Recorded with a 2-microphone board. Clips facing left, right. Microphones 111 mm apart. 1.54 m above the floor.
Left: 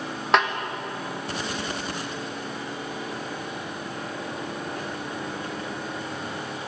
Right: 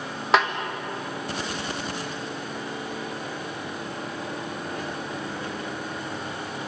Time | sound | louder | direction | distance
0.3 | a snare drum | even | centre (ahead or behind) | 1.6 m